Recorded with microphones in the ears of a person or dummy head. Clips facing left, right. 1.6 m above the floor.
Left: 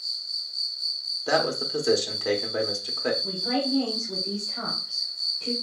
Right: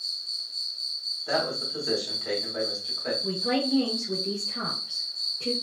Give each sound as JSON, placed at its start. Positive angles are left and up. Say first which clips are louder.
{"t": 0.0, "sound": "an insect", "louder": "even", "side_deg": -55, "distance_m": 1.2}
{"t": 1.3, "sound": "a man speaking", "louder": "left 4 dB", "side_deg": 75, "distance_m": 1.1}
{"t": 3.2, "sound": "a woman speaking", "louder": "right 1 dB", "side_deg": -75, "distance_m": 1.9}